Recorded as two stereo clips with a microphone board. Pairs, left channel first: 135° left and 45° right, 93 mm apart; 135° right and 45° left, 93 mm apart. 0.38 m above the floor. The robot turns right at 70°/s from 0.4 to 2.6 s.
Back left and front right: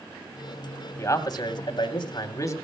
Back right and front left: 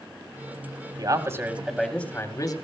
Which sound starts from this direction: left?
A man speaking, at 1.0 s.